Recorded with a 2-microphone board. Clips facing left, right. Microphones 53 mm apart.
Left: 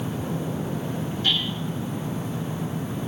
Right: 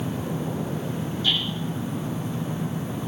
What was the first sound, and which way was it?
Hammering, 50° left (ahead or behind).